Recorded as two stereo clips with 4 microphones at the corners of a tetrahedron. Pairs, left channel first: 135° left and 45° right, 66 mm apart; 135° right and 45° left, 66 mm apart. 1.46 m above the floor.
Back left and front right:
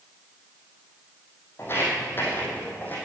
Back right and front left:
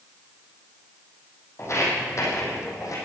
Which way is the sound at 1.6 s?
175° right.